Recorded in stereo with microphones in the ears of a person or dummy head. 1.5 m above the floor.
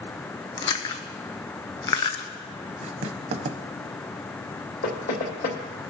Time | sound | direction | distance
0.6 | chewing | 30° left (ahead or behind) | 0.6 m
2.8 | writing | 40° right (ahead or behind) | 0.6 m
4.8 | knocking | 55° left (ahead or behind) | 2.0 m